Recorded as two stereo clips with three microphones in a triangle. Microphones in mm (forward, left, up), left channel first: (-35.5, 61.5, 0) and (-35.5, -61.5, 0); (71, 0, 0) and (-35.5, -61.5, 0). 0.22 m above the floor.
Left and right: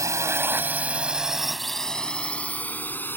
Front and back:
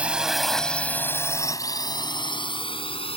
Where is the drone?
85° right; by 3.2 s 20° left.